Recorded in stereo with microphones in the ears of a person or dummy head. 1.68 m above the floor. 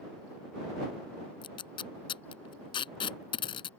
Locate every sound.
1.4 s tape being pulled: 30° left (ahead or behind)